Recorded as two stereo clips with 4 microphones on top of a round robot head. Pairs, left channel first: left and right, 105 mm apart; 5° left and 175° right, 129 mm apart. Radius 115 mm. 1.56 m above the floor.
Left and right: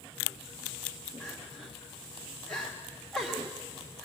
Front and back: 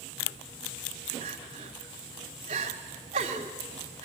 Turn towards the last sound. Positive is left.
turn(degrees=180)